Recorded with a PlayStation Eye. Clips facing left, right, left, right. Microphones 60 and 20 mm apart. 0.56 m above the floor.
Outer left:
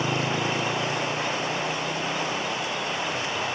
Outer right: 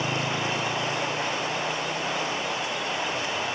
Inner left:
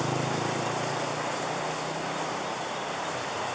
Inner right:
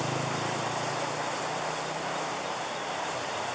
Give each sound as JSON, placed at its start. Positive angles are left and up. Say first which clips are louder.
{"t": 0.0, "sound": "a motorcycle", "louder": "outer left 2 dB, inner left 2 dB", "side_deg": 25}